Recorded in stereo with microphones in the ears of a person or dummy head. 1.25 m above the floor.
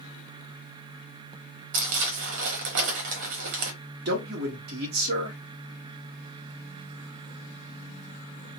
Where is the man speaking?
60° right (ahead or behind), 1.1 m.